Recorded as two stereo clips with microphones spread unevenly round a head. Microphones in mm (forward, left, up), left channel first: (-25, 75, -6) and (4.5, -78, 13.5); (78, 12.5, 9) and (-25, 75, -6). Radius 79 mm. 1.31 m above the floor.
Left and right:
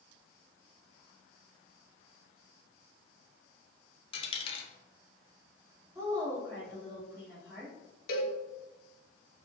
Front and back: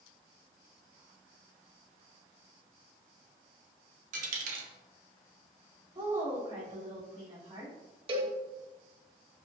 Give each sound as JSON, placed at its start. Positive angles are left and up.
{"t": 4.1, "sound": "a dropped coin", "azimuth_deg": 160, "distance_m": 1.1}
{"t": 6.0, "sound": "a woman speaking", "azimuth_deg": -150, "distance_m": 3.0}
{"t": 8.1, "sound": "a cowbell", "azimuth_deg": 110, "distance_m": 1.1}